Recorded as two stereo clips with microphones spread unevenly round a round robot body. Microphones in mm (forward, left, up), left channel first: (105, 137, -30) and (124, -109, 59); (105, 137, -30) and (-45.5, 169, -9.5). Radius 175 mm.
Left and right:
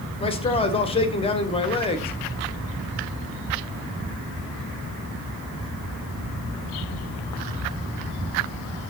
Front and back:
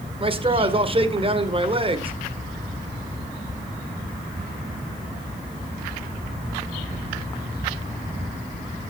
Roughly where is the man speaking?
Behind left.